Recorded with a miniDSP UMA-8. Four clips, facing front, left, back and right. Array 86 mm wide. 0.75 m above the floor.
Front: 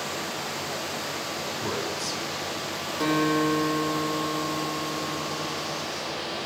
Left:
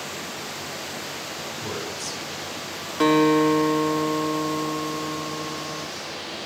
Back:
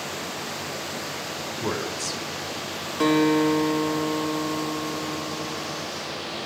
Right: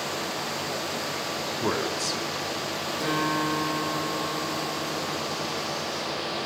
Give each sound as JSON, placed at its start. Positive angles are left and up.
{"t": 1.6, "sound": "a man speaking", "azimuth_deg": -105, "distance_m": 1.9}
{"t": 3.0, "sound": "a guitar", "azimuth_deg": 110, "distance_m": 1.9}